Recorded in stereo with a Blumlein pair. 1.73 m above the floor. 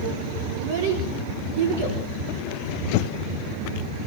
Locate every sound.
0.6 s a child speaking: 55° right, 4.5 m